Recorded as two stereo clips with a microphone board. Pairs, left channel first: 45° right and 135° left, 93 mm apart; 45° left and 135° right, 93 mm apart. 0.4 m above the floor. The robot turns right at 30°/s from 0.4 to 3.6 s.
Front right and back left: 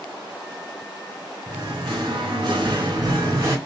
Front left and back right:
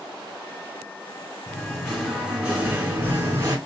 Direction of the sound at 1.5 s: 120° left.